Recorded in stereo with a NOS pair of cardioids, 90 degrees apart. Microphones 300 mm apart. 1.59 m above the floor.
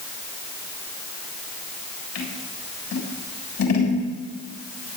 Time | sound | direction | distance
2.1 | scissors | 60° left | 7.5 m